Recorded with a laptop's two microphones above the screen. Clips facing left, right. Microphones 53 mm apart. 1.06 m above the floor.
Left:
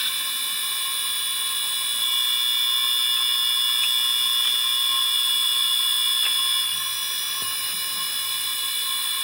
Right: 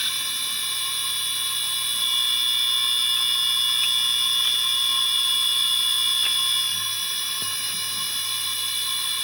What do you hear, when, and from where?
0.0 s a machine running: 5° left (ahead or behind), 1.4 m